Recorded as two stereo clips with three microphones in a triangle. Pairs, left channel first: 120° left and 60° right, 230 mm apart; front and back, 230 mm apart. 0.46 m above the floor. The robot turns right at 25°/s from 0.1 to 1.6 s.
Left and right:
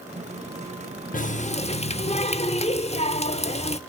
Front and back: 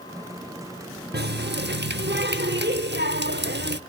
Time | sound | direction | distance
1.1 | a running tap | 160° left | 0.8 m